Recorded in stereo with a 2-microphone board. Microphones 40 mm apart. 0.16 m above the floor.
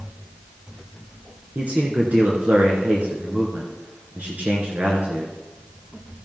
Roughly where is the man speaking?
Right.